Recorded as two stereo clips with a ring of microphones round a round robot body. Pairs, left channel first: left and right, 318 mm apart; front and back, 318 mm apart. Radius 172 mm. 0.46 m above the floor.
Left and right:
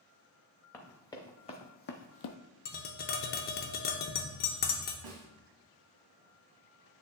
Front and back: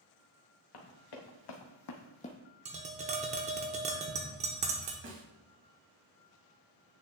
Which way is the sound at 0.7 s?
5° left.